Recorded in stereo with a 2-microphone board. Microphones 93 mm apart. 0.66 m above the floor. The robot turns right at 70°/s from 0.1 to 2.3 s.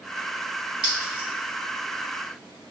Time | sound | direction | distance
0.8 | a clink | 60° right (ahead or behind) | 1.7 m